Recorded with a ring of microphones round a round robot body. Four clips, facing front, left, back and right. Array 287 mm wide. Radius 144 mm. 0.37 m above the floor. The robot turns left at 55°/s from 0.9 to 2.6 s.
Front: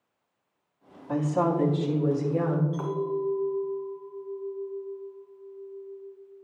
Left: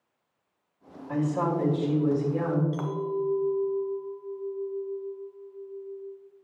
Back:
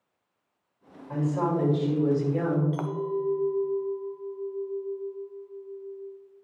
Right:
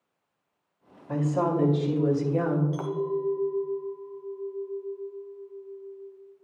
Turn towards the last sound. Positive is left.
turn(degrees=170)